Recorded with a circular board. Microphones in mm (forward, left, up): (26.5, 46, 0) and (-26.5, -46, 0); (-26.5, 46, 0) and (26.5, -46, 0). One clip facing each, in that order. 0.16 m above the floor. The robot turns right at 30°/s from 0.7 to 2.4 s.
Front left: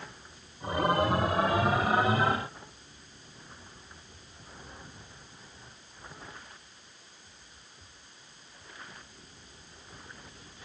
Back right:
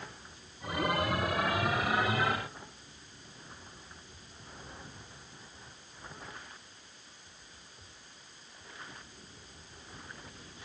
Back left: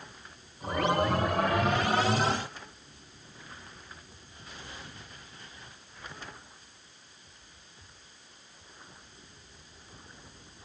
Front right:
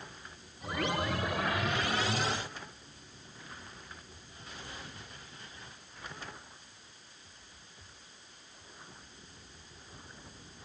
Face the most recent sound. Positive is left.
No sound to turn to.